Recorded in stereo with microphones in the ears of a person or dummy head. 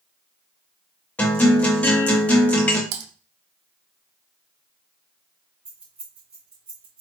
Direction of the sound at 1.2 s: 10° left (ahead or behind).